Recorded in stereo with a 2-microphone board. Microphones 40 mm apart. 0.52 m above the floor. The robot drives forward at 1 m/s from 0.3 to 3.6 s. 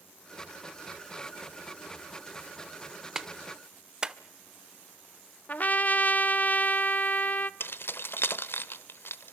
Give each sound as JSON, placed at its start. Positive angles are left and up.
{"t": 3.1, "sound": "a clap", "side_deg": -15, "distance_m": 1.2}
{"t": 5.5, "sound": "a trumpet", "side_deg": 40, "distance_m": 0.6}
{"t": 7.6, "sound": "keys jangling", "side_deg": 65, "distance_m": 1.0}